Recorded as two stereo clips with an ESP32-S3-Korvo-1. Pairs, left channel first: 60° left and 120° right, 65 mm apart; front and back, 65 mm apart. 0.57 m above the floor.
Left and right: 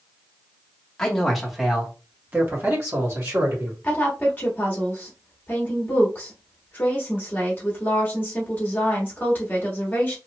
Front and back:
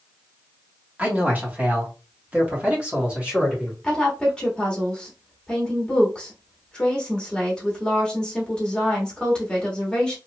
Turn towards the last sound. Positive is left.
turn(degrees=60)